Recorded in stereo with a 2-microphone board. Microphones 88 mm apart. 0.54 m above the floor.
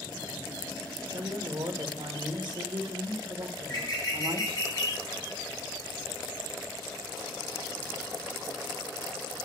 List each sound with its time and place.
1.1 s a woman speaking: 60° right (ahead or behind), 1.5 m
3.6 s a bird: 55° left (ahead or behind), 2.5 m